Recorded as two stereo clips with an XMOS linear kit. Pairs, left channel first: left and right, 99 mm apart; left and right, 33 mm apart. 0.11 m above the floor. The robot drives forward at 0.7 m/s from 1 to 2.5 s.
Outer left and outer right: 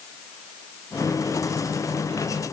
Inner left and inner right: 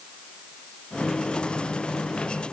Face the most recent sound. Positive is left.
No sound to turn to.